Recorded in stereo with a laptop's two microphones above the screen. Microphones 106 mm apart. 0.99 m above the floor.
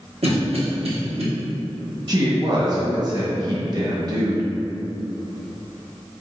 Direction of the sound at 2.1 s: 35° right (ahead or behind).